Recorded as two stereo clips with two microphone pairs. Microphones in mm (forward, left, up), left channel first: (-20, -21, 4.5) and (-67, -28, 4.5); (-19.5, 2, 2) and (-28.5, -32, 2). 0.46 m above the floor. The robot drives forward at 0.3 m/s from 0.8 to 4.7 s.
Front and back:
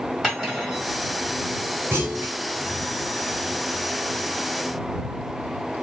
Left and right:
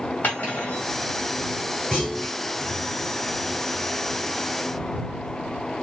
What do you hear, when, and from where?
0.2 s cutlery clinking: 100° left, 1.7 m
1.9 s a clunk: 155° left, 1.4 m